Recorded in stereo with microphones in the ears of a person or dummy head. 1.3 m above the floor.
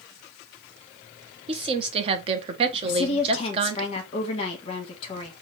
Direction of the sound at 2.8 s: 35° left (ahead or behind).